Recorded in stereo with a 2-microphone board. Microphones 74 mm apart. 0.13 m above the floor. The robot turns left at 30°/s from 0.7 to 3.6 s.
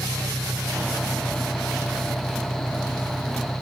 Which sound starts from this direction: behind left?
An engine running, at 0.0 s.